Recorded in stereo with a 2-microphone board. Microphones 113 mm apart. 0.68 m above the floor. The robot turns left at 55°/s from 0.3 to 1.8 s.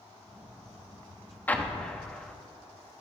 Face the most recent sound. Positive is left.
turn(degrees=10)  # may be behind; listen again after turning